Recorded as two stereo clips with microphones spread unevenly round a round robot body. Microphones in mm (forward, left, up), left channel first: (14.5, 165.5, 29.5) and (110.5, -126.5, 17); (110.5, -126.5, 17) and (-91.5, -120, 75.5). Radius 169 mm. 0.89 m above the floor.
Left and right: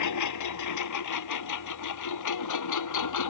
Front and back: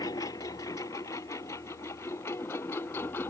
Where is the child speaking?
I don't hear a child speaking.